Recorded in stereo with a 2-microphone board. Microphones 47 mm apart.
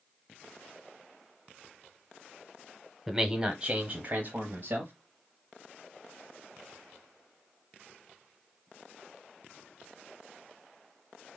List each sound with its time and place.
3.1 s a man speaking: 5° right (ahead or behind), 1.0 m; by 4.9 s 45° right (ahead or behind), 1.3 m